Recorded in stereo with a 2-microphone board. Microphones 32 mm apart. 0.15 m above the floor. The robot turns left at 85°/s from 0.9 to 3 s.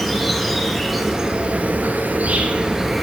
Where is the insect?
Straight ahead, 1.2 m; by 3.0 s 175° right, 1.2 m.